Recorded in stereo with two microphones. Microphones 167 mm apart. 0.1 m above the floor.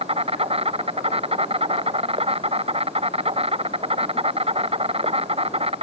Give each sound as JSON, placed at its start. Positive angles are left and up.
{"t": 0.0, "sound": "an insect", "side_deg": -35}